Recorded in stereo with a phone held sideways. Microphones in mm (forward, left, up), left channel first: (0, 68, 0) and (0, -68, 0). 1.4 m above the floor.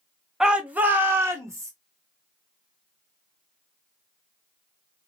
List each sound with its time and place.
0.4 s a shout: 5° right (ahead or behind), 0.9 m; by 1.7 s 25° right (ahead or behind), 1.4 m